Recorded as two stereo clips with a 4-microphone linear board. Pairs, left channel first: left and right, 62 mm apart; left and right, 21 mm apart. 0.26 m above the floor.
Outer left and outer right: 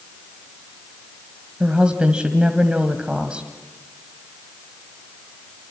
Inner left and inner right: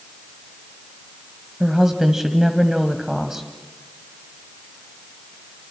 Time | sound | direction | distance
1.6 | a woman speaking | 20° right (ahead or behind) | 1.4 m